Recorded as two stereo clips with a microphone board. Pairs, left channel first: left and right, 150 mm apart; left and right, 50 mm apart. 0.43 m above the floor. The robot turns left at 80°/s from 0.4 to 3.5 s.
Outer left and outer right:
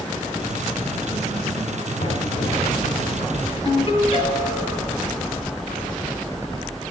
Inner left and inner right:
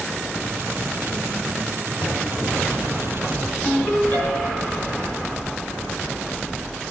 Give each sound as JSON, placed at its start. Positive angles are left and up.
{"t": 2.0, "sound": "knocking", "azimuth_deg": 115, "distance_m": 2.5}
{"t": 3.6, "sound": "a ringtone", "side_deg": 35, "distance_m": 3.0}